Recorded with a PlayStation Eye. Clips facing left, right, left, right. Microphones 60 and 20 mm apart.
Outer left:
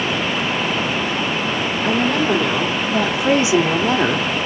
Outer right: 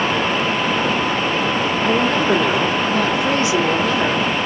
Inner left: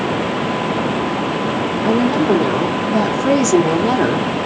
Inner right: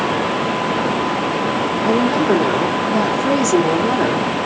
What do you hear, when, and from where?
1.8 s a woman speaking: 10° right (ahead or behind), 1.6 m; by 4.3 s 45° left (ahead or behind), 0.9 m